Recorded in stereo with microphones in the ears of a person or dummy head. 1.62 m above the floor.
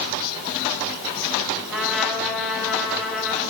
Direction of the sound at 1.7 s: Centre (ahead or behind).